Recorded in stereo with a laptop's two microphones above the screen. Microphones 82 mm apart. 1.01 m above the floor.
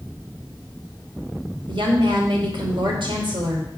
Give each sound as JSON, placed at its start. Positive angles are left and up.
{"t": 1.7, "sound": "a woman speaking", "side_deg": -85, "distance_m": 3.0}